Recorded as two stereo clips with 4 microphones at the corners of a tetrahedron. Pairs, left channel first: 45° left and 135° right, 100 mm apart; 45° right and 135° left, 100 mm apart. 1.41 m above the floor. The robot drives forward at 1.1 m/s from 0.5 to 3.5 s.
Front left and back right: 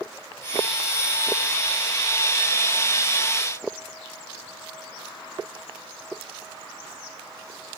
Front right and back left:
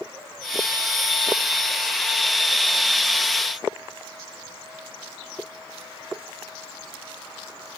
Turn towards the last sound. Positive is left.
No sound to turn to.